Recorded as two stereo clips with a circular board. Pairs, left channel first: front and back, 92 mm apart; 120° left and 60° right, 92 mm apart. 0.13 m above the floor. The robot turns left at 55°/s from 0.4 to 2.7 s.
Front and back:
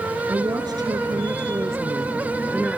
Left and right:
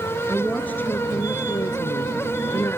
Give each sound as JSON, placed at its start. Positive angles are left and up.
{"t": 0.3, "sound": "a woman speaking", "azimuth_deg": -155, "distance_m": 1.6}